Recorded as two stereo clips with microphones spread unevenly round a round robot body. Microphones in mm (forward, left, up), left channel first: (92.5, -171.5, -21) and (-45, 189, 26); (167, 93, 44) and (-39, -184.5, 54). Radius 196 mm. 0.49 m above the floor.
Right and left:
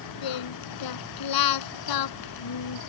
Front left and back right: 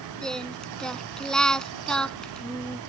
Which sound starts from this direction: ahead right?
Singing, at 0.2 s.